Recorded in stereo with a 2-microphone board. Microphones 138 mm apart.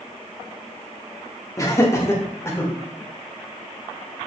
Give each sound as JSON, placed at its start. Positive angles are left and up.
{"t": 1.6, "sound": "laughter", "side_deg": 25, "distance_m": 1.4}